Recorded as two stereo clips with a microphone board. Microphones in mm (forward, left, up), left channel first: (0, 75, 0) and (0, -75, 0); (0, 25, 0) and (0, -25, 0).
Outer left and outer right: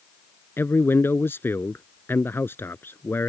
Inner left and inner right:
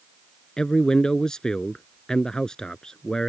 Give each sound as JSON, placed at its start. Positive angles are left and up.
{"t": 0.6, "sound": "a man speaking", "side_deg": 15}